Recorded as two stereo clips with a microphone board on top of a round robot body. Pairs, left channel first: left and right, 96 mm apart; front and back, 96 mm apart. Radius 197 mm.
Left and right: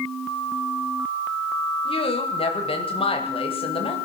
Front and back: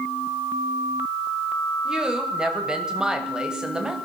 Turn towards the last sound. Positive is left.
turn(degrees=100)